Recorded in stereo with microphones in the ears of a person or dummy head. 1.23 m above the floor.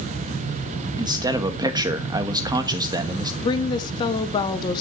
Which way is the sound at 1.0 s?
25° right (ahead or behind).